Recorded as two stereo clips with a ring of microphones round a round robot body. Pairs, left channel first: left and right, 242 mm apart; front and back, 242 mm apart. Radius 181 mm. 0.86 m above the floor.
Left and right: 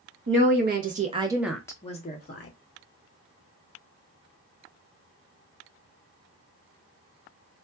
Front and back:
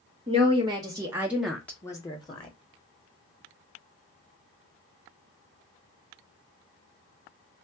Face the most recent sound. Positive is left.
turn(degrees=65)